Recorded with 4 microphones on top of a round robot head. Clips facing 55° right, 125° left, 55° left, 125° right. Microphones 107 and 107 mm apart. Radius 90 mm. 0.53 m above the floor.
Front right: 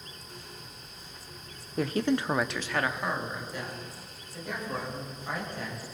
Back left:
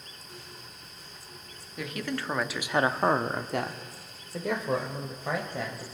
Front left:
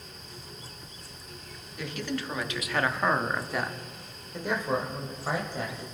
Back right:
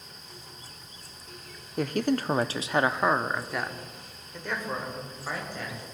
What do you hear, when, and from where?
1.8 s a man speaking: 95° right, 0.9 m; by 5.8 s 125° left, 2.5 m